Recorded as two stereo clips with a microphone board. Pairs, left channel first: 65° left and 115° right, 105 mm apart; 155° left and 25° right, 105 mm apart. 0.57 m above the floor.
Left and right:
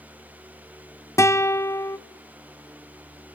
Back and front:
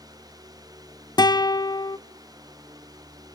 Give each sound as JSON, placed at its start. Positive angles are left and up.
{"t": 1.2, "sound": "a guitar", "azimuth_deg": 120, "distance_m": 0.9}